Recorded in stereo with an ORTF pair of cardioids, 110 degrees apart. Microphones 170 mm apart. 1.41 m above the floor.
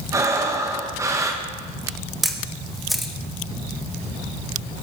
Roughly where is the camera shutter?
Ahead.